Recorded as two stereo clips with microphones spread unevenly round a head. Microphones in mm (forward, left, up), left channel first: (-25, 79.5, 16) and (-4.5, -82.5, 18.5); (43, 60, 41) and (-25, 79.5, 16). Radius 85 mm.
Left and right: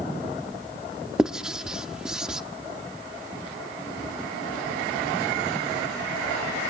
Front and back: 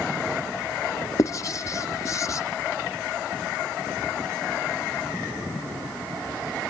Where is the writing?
Straight ahead, 0.8 m.